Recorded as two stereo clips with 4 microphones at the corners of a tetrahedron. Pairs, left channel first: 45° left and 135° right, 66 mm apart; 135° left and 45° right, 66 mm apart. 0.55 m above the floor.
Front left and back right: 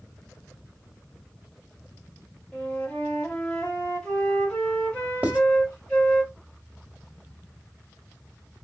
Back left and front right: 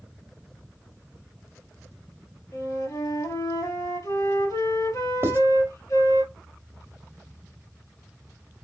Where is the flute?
120° left, 3 m.